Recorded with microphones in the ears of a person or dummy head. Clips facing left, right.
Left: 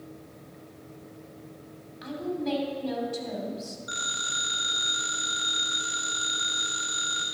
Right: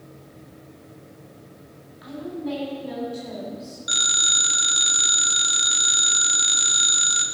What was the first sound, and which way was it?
A woman speaking, 70° left (ahead or behind).